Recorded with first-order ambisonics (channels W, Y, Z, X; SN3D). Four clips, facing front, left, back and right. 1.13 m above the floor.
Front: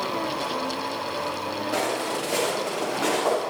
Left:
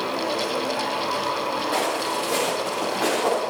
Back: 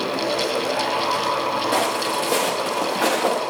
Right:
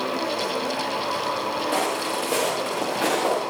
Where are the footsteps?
155° right, 4 m.